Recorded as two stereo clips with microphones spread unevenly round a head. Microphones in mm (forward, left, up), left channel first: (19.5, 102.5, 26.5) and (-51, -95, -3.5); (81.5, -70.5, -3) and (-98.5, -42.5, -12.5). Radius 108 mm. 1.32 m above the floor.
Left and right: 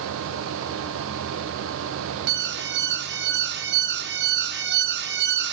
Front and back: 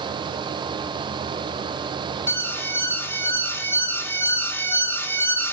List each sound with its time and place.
2.3 s an alarm: 85° right, 2.0 m